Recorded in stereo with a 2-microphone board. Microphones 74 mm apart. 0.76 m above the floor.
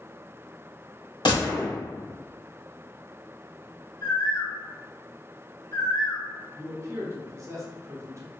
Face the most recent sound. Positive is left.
turn(degrees=-40)  # may be behind; listen again after turning